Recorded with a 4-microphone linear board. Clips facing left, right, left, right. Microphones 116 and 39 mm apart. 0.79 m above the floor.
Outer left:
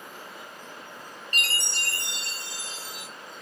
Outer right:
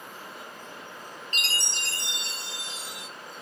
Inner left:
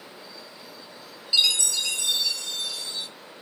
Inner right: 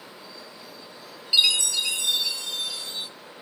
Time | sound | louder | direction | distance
1.3 | a chime | outer left 3 dB, inner right 2 dB | 20° right (ahead or behind) | 1.5 m